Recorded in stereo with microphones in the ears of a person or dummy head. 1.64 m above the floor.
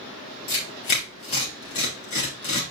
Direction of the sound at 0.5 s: 40° left (ahead or behind).